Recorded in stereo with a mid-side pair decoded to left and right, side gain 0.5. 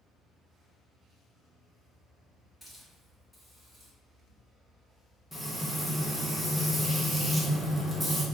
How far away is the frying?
About 1.4 m.